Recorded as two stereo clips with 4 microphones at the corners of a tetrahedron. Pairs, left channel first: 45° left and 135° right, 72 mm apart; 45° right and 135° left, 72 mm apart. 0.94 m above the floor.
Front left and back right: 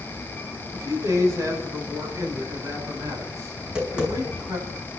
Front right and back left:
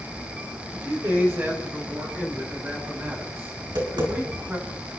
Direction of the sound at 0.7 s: 170° right.